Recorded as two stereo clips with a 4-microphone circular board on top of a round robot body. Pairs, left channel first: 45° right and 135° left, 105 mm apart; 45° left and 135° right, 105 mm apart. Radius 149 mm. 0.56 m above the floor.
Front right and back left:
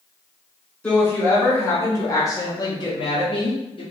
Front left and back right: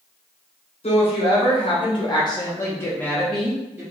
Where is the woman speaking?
30° left, 1.8 m; by 3.8 s 65° right, 1.1 m.